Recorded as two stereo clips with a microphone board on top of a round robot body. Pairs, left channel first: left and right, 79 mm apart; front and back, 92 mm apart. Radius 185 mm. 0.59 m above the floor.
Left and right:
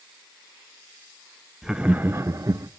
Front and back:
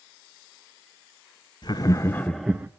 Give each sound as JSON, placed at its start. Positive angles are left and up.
{"t": 1.6, "sound": "laughter", "azimuth_deg": -5, "distance_m": 0.9}